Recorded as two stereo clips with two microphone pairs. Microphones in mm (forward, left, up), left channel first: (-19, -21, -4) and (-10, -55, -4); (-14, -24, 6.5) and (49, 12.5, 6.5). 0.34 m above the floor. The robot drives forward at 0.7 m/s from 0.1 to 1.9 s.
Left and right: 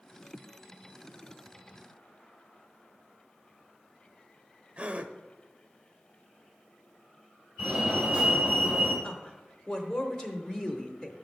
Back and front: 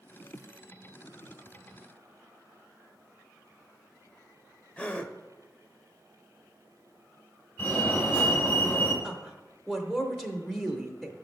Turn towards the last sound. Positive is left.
turn(degrees=120)